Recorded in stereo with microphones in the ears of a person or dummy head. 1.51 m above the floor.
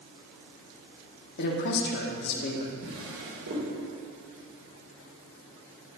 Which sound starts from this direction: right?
A drawer, at 2.8 s.